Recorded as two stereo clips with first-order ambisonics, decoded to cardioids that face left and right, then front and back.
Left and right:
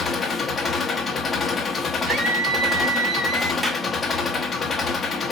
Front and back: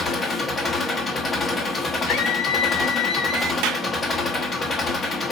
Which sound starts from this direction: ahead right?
A scream, at 2.1 s.